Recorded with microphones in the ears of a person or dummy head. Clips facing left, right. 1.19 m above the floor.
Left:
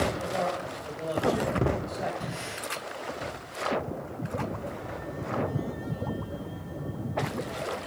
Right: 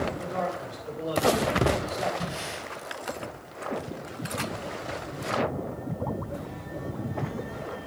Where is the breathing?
45° right (ahead or behind), 4.5 m.